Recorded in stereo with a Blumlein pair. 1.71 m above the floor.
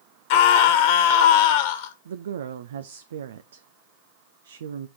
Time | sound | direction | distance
0.3 | a scream | 50° left | 2 m
2.0 | a woman speaking | 60° right | 0.6 m